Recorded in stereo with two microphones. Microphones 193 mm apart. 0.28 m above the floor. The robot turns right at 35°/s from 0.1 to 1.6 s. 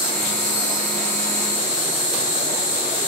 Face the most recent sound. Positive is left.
turn(degrees=-35)